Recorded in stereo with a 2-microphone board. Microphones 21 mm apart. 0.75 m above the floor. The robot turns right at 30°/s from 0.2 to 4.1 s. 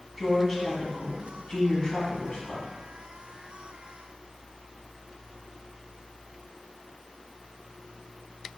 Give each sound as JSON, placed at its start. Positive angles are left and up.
{"t": 0.2, "sound": "a woman speaking", "azimuth_deg": -5, "distance_m": 1.1}